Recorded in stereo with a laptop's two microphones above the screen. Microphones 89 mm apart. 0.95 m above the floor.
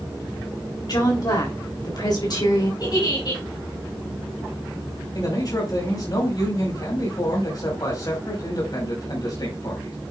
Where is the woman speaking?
50° left (ahead or behind), 3 m.